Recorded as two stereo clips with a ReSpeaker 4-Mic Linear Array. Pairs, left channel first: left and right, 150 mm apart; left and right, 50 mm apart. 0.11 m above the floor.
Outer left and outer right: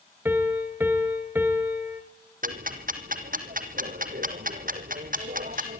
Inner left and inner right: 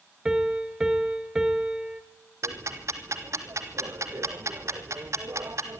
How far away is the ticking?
About 2.0 m.